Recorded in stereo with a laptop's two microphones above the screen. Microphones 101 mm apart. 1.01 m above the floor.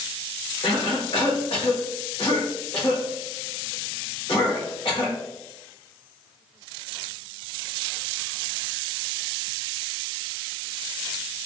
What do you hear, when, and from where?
0.6 s a cough: 65° left (ahead or behind), 1.2 m